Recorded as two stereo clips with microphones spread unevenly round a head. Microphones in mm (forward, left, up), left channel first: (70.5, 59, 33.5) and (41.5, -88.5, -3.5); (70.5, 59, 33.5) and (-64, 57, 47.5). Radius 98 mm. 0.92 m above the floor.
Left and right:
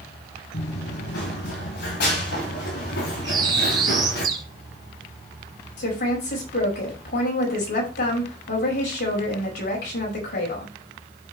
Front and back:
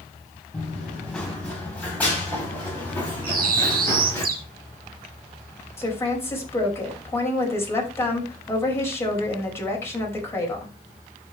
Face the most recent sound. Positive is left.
turn(degrees=75)